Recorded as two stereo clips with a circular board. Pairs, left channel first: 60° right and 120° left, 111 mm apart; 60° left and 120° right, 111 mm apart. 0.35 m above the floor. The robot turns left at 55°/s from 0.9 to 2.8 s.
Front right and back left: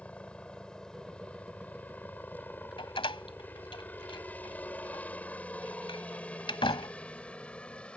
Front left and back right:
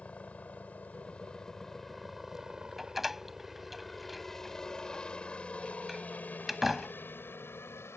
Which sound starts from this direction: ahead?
A helicopter, at 0.0 s.